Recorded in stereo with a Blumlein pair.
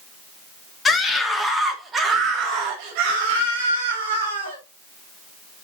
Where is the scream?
15° left, 2.5 m; by 4.6 s 65° right, 4.5 m.